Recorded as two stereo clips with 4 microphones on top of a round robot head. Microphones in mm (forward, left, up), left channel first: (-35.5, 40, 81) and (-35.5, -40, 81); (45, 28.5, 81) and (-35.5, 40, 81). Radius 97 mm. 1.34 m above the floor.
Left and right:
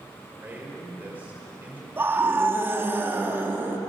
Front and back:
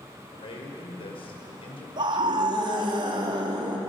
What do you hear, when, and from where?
0.3 s a man speaking: 20° right, 5.5 m
2.0 s a scream: 155° right, 3.5 m